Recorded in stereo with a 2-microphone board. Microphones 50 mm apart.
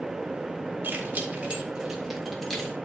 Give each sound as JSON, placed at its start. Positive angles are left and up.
{"t": 0.8, "sound": "keys jangling", "side_deg": -40, "distance_m": 3.0}